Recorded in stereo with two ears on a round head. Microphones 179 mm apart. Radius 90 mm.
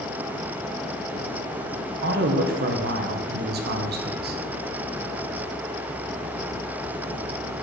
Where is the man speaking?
55° right (ahead or behind), 1.1 m.